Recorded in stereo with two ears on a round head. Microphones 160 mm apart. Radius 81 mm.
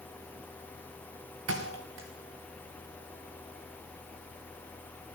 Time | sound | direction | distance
1.5 | a thud | 85° right | 4 m